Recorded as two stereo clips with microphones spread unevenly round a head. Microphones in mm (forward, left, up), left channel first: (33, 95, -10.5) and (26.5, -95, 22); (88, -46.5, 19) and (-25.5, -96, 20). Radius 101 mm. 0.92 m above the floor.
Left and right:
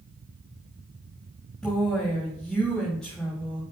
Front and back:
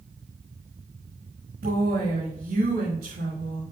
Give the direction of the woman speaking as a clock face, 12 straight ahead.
6 o'clock.